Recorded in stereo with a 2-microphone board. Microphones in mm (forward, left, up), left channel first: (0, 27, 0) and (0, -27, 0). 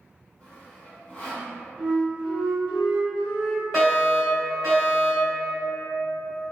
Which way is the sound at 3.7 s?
Centre (ahead or behind).